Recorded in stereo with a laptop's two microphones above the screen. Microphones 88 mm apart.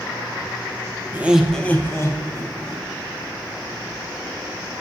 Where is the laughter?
25° right (ahead or behind), 0.5 m; by 2.9 s 50° left (ahead or behind), 1.2 m.